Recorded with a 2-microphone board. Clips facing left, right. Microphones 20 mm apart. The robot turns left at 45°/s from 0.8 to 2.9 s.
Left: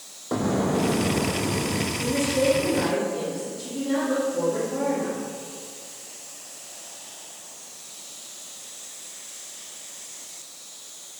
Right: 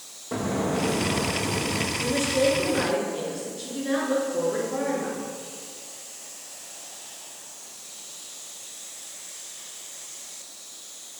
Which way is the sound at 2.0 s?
30° right.